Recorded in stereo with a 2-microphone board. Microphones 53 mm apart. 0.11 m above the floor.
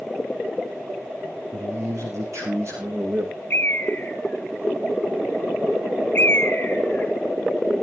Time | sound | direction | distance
1.5 | a man speaking | 65° right (ahead or behind) | 6.5 m
3.5 | a bird | 40° left (ahead or behind) | 1.9 m